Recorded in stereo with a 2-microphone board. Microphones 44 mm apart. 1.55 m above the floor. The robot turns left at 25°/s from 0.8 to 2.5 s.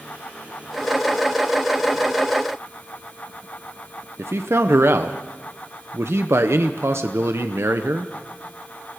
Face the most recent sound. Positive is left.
turn(degrees=-65)  # may be behind; listen again after turning